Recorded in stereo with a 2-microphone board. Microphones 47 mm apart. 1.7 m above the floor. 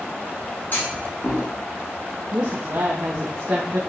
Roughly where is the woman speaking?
Right.